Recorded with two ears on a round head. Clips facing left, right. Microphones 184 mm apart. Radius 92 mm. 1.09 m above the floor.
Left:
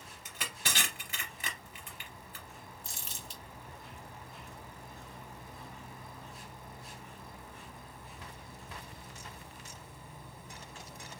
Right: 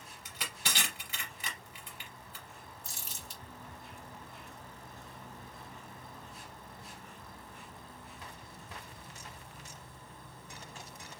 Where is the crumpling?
55° left (ahead or behind), 2.5 m.